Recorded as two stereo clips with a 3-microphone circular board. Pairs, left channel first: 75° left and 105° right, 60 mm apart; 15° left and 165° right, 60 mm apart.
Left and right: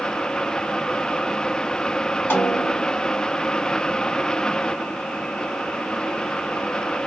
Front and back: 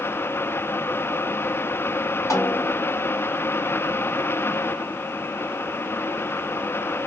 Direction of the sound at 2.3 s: 25° left.